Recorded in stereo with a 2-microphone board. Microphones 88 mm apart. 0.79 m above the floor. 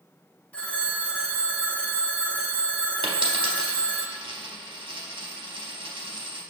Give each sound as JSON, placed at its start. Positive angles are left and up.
{"t": 0.5, "sound": "a phone ringing", "side_deg": 15, "distance_m": 0.5}
{"t": 3.0, "sound": "a dropped coin", "side_deg": -80, "distance_m": 0.7}